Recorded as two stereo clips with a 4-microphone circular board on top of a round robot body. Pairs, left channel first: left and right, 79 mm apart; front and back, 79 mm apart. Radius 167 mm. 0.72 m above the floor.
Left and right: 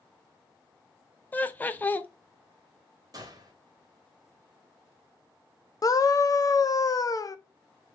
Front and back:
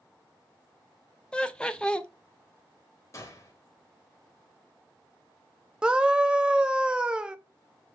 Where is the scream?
105° left, 0.6 m.